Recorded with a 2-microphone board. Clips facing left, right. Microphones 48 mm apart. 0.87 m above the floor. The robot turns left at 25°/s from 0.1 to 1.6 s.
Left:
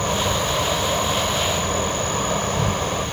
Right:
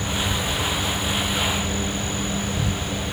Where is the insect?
110° left; by 3.1 s 70° left.